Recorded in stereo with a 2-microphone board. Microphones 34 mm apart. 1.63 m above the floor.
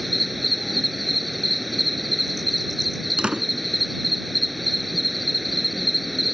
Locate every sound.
0.0 s an insect: centre (ahead or behind)
3.2 s a door slam: 30° right (ahead or behind)